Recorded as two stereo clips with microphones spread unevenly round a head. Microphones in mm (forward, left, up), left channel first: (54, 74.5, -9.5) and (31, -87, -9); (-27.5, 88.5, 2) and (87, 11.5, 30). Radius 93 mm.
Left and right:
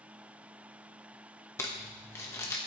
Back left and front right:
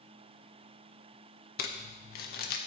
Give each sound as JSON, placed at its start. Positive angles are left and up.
{"t": 1.6, "sound": "crumpling", "azimuth_deg": 155, "distance_m": 0.9}